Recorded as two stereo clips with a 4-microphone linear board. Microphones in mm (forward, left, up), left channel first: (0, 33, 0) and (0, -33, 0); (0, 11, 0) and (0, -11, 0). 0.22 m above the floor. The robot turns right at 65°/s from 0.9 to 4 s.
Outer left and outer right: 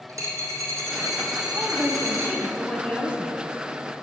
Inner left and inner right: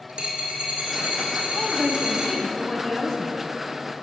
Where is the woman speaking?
60° right, 1.2 m; by 3.4 s 65° left, 1.2 m.